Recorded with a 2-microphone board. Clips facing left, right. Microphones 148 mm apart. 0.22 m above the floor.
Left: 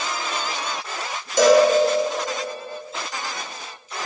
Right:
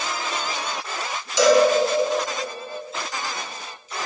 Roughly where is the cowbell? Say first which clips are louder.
Left 2 dB; left.